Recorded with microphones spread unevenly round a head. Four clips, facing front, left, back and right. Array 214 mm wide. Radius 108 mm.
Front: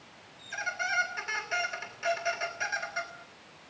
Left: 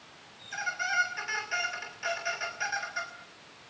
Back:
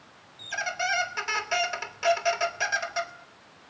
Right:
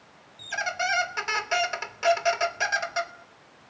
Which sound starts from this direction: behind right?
A squeak, at 0.4 s.